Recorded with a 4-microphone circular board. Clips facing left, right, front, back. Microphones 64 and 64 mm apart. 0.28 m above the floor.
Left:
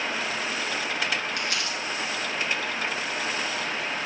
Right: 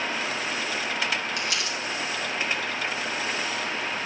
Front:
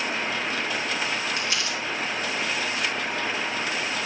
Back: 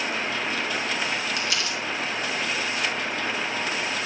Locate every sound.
1.4 s crumpling: 55° left, 2.5 m